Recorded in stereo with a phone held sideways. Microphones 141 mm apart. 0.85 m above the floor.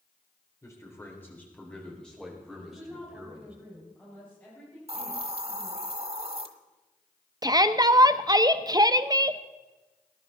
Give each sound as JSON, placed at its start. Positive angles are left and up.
{"t": 0.6, "sound": "a man speaking", "side_deg": 20, "distance_m": 3.5}
{"t": 2.5, "sound": "a woman speaking", "side_deg": 15, "distance_m": 5.5}
{"t": 4.9, "sound": "a hiss", "side_deg": -45, "distance_m": 1.2}
{"t": 7.4, "sound": "a shout", "side_deg": -25, "distance_m": 0.7}